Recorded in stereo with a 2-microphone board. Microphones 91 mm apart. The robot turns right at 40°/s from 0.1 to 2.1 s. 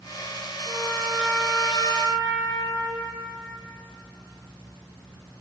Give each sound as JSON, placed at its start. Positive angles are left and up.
{"t": 0.7, "sound": "a trumpet", "azimuth_deg": 170, "distance_m": 1.9}